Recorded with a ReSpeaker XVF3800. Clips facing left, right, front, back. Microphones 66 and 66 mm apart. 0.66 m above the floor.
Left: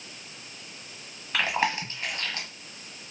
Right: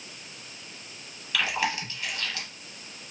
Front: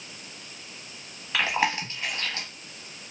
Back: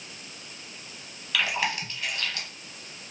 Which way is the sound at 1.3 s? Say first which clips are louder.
Left 2 dB, front 3 dB; 45° left.